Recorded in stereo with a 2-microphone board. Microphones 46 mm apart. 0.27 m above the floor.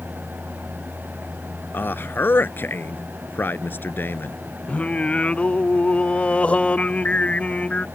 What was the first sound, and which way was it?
A man speaking, 50° left (ahead or behind).